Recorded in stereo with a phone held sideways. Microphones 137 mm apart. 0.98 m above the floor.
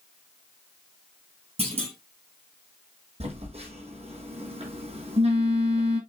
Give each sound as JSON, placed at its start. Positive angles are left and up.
{"t": 1.6, "sound": "a clunk", "side_deg": -45, "distance_m": 6.5}
{"t": 3.2, "sound": "a phone buzzing", "side_deg": -45, "distance_m": 6.5}